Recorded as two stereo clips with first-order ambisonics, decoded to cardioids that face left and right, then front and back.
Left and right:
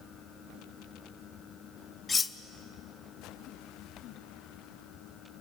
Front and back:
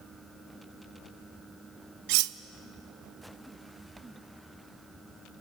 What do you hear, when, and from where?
2.1 s cutlery clinking: 165° left, 0.5 m